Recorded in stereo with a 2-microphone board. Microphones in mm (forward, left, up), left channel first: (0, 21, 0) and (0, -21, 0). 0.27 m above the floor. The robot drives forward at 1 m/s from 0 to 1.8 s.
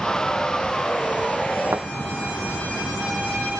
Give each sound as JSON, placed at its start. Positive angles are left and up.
{"t": 1.7, "sound": "a thud", "side_deg": -85}